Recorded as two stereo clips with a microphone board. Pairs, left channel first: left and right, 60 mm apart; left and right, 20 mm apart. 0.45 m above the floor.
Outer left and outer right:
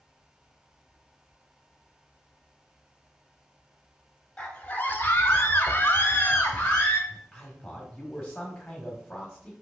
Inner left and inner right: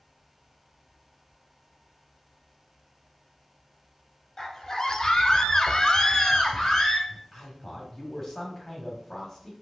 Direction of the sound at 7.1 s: 15° left (ahead or behind).